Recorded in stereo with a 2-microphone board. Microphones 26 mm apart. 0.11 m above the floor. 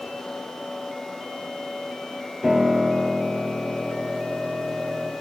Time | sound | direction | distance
2.4 | a piano | 20° right (ahead or behind) | 2.5 m